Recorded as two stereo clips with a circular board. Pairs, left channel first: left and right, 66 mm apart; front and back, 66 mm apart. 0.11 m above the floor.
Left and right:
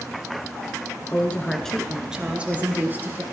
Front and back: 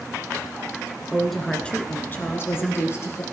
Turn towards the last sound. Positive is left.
turn(degrees=-35)